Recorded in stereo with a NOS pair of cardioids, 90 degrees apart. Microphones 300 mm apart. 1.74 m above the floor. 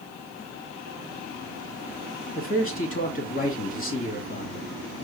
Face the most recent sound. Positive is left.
turn(degrees=30)